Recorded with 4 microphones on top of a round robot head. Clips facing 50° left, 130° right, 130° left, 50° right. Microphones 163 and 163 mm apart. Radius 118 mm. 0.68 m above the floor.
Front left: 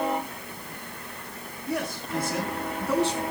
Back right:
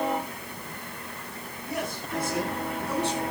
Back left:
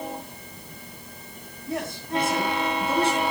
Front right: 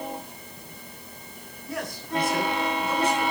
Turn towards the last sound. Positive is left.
turn(degrees=65)